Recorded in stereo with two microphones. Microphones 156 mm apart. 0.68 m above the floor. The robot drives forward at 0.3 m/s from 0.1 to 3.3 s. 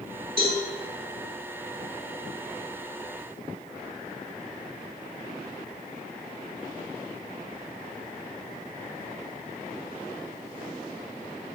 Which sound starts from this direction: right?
A cowbell, at 0.4 s.